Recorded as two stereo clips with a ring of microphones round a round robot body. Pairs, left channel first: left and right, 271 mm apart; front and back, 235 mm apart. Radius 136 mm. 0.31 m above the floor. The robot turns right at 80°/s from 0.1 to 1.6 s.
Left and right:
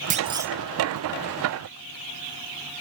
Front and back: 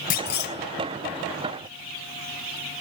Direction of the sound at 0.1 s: 40° right.